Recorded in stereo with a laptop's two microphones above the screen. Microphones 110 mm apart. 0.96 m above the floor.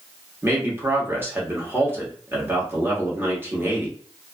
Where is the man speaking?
20° right (ahead or behind), 1.0 m.